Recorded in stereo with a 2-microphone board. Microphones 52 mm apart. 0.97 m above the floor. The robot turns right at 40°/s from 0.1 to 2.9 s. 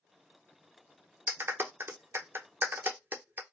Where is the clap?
40° right (ahead or behind), 0.6 m; by 3.4 s 35° right (ahead or behind), 0.6 m.